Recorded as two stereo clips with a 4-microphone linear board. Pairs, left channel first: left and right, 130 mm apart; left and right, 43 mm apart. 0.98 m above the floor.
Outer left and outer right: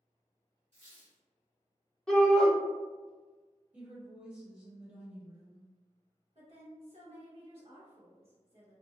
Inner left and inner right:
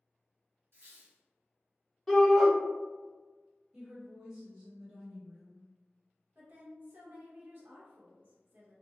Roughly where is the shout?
Centre.